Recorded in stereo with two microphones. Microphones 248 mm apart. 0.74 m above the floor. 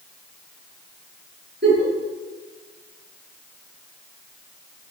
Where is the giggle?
50° right (ahead or behind), 3.5 m.